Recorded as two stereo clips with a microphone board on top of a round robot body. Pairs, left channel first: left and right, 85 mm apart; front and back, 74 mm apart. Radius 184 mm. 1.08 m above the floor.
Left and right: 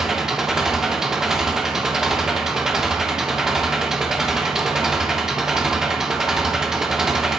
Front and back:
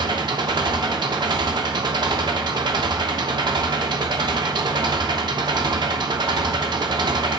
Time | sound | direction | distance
0.0 | an engine running | 175° right | 1.0 m